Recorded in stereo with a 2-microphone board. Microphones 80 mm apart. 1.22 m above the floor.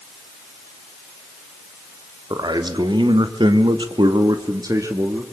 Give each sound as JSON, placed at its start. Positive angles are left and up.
{"t": 2.3, "sound": "a man speaking", "side_deg": -60, "distance_m": 3.0}